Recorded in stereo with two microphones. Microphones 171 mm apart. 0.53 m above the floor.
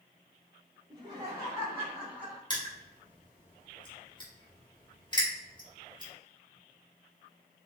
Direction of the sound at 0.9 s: 25° right (ahead or behind).